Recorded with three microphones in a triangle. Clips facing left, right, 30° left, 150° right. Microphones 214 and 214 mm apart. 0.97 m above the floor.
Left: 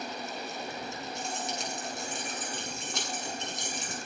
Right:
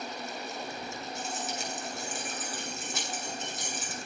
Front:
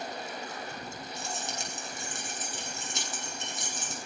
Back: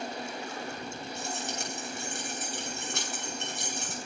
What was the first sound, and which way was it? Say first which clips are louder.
Keys jangling: even, back 2 dB; 175° right.